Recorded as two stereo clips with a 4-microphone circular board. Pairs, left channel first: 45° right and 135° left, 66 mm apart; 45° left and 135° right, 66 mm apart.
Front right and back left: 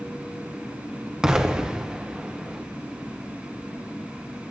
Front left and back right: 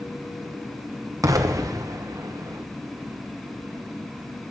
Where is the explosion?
145° right, 0.8 m.